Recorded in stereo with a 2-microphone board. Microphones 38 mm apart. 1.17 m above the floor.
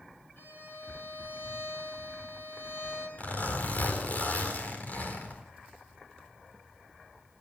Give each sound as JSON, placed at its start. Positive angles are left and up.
{"t": 0.4, "sound": "a violin", "side_deg": 80, "distance_m": 9.5}
{"t": 3.2, "sound": "a zipper", "side_deg": 45, "distance_m": 4.5}